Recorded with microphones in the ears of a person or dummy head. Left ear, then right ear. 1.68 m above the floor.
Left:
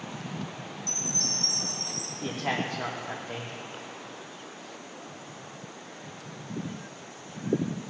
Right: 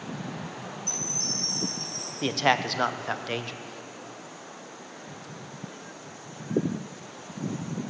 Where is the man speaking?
65° right (ahead or behind), 0.6 m.